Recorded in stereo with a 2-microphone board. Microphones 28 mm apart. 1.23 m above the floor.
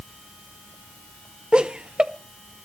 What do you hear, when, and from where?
1.5 s laughter: 40° right (ahead or behind), 0.6 m